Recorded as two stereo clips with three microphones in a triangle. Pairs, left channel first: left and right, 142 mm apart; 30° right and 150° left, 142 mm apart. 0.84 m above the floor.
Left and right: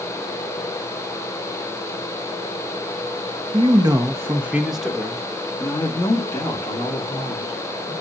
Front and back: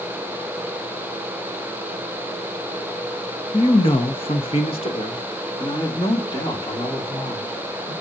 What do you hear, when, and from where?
3.5 s a man speaking: 60° right, 1.1 m; by 7.9 s 30° left, 3 m